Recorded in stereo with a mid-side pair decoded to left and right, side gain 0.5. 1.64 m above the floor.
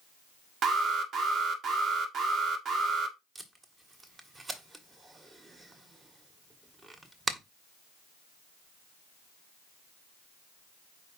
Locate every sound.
0.6 s an alarm: 60° right, 2 m
3.4 s tape being pulled: 25° right, 2 m